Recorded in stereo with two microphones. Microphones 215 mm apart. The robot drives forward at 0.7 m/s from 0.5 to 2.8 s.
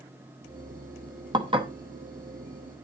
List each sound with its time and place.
1.3 s dishes clattering: 20° right (ahead or behind), 1.1 m; by 1.7 s 25° right (ahead or behind), 0.8 m